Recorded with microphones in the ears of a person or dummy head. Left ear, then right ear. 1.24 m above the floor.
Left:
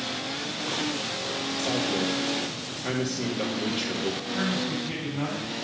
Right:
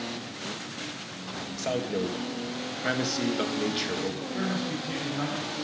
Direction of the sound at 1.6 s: 55° right (ahead or behind).